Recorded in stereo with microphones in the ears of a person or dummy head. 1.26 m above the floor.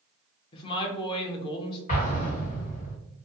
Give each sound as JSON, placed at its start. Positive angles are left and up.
{"t": 0.5, "sound": "a woman speaking", "side_deg": 30, "distance_m": 0.6}
{"t": 1.9, "sound": "an explosion", "side_deg": 45, "distance_m": 1.0}